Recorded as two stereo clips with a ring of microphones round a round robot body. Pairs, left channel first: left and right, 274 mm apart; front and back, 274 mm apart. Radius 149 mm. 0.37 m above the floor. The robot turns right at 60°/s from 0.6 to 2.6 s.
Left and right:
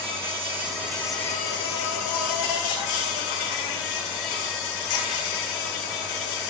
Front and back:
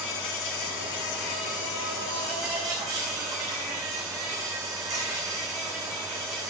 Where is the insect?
20° right, 3.5 m; by 6.5 s 100° left, 3.5 m.